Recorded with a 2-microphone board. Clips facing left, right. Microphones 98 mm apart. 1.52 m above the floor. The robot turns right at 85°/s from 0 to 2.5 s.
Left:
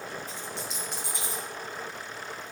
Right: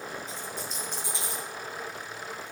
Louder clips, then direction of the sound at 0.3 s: Even; 55° left.